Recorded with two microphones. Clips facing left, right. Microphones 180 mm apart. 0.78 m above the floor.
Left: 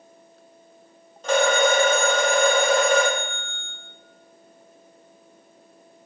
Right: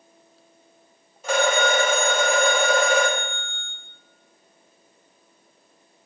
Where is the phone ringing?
10° right (ahead or behind), 1.1 m.